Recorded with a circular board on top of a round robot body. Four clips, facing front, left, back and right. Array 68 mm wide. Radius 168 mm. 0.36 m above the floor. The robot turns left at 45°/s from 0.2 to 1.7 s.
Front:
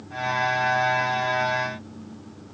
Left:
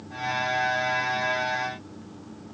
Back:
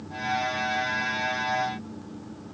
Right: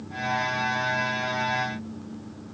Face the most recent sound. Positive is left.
No sound to turn to.